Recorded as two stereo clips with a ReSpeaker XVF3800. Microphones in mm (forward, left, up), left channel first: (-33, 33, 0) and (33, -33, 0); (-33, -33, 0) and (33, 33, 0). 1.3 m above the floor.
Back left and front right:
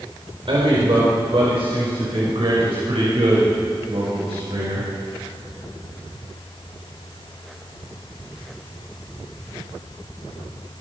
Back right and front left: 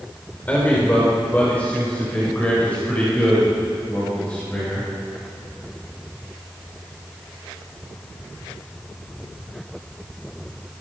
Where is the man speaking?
60° right, 4.5 m.